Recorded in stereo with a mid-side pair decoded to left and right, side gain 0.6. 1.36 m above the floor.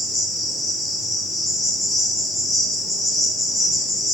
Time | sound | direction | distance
0.0 | an insect | 15° left | 1.1 m